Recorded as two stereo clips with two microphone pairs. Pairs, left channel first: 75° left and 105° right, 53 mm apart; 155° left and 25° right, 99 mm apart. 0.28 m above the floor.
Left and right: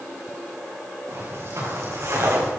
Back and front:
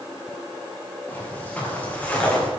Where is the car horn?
I don't hear a car horn.